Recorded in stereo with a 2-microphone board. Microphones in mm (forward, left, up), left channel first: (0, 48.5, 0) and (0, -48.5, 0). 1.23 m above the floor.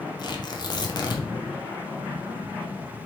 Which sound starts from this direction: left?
Tearing paper, at 0.2 s.